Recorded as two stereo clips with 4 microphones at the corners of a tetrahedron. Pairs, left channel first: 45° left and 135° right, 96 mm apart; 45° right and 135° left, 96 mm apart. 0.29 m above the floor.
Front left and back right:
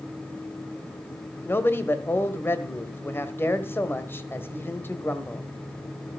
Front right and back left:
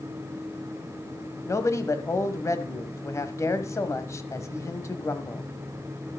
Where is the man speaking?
10° right, 1.1 m.